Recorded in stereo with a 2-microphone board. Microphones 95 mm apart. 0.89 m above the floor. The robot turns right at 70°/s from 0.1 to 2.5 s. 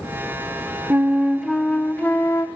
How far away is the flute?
About 0.7 m.